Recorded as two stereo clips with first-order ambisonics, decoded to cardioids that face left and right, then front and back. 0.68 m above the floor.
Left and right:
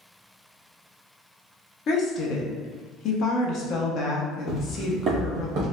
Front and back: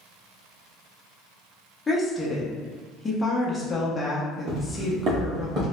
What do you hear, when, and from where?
1.9 s a woman speaking: 75° left, 0.6 m
4.5 s footsteps: 150° left, 1.0 m; by 5.6 s 125° right, 1.7 m